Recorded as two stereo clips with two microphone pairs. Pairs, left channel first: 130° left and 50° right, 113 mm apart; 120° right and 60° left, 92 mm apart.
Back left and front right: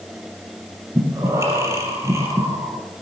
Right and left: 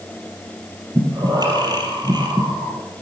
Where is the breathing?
20° left, 4 m.